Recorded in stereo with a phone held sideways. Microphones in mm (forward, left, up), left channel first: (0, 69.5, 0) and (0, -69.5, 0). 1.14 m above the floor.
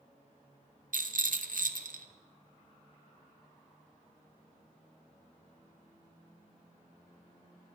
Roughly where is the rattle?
Right.